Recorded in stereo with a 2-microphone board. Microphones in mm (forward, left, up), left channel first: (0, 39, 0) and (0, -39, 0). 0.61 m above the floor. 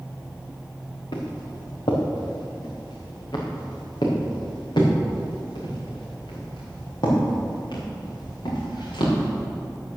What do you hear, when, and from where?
1.1 s footsteps: 80° left, 3.5 m; by 9.3 s 70° left (ahead or behind), 7.5 m